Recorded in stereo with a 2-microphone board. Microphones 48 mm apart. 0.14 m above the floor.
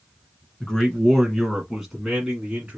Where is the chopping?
No chopping in this recording.